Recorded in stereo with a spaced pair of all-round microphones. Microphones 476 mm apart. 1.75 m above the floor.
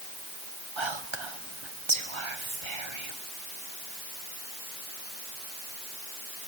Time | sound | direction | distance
0.8 | whispering | 80° right | 1.3 m